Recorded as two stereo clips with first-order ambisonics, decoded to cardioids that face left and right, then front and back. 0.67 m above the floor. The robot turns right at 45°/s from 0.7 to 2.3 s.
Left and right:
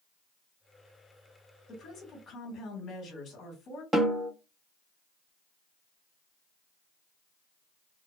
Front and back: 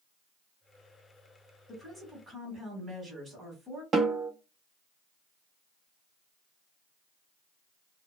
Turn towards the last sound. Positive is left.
turn(degrees=-140)